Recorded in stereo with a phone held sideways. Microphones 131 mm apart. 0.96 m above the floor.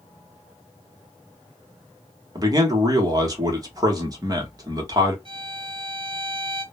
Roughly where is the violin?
Right.